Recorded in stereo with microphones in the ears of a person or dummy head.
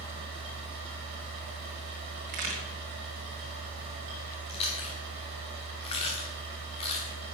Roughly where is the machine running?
Right.